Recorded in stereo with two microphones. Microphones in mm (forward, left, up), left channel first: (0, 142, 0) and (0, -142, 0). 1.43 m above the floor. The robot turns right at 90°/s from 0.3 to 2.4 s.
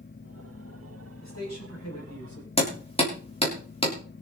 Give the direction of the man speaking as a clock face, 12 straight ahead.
11 o'clock.